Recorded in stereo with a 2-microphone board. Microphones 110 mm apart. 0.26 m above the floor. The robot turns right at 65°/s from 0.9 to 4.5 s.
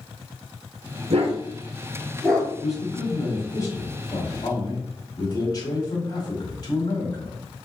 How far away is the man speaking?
About 1.4 m.